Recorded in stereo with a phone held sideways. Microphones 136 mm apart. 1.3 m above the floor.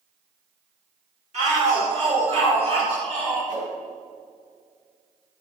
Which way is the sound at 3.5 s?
60° right (ahead or behind).